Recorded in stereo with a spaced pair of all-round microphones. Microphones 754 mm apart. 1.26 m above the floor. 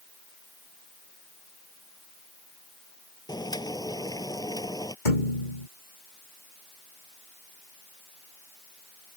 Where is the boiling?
5° left (ahead or behind).